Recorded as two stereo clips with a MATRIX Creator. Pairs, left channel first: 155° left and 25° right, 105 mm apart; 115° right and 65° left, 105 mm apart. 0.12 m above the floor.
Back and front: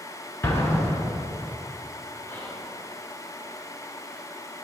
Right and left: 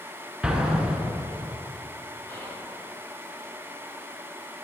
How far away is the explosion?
About 0.9 m.